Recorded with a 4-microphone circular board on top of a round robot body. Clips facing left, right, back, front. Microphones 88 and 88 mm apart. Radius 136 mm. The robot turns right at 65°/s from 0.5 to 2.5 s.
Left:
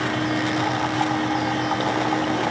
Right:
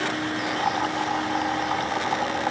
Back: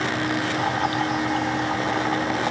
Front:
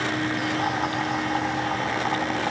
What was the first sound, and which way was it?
Only background noise.